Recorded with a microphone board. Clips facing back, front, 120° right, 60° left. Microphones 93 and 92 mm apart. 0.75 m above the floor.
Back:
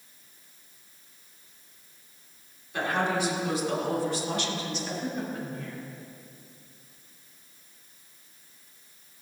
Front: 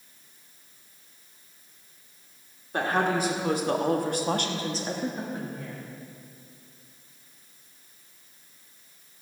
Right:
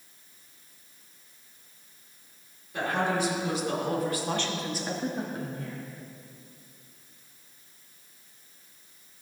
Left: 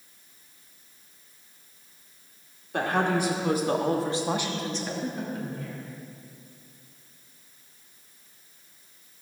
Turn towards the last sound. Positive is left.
turn(degrees=-80)